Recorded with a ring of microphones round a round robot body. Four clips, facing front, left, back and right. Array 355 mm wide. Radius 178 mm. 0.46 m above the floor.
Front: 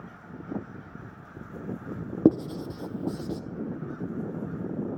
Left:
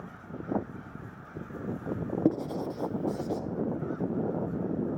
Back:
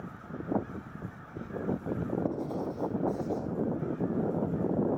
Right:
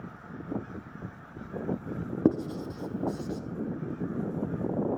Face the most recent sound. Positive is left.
turn(degrees=-20)